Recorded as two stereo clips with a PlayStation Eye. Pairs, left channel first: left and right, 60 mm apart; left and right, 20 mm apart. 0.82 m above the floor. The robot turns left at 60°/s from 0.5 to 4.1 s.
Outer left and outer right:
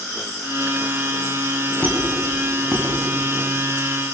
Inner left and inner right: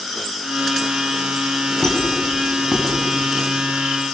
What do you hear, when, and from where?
1.8 s a squeak: 25° left (ahead or behind), 5 m; by 4.2 s 70° right (ahead or behind), 5 m